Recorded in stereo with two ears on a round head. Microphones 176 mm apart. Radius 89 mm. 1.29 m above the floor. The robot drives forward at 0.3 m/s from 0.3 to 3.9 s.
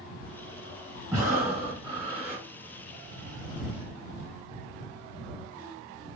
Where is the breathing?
15° right (ahead or behind), 1.0 m; by 2.4 s 10° right (ahead or behind), 1.4 m.